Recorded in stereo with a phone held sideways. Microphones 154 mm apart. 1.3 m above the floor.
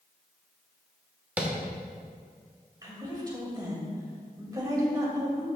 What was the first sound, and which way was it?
Tapping, 10° right (ahead or behind).